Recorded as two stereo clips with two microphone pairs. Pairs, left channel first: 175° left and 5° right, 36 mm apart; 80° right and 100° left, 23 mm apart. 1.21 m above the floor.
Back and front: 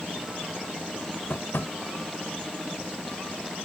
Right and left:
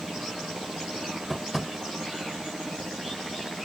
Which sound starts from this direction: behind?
Tapping, at 1.3 s.